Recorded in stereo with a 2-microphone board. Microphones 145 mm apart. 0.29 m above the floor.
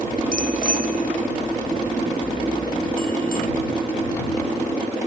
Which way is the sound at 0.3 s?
70° left (ahead or behind).